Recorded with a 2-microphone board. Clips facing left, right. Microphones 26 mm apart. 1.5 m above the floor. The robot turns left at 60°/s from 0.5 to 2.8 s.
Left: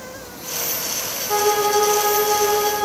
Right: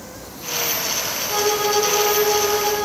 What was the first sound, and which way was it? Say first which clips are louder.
A violin: left 2 dB; 115° left.